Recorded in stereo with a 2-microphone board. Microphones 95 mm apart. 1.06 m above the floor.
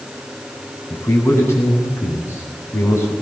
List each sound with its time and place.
0.9 s a man speaking: 25° left (ahead or behind), 8.5 m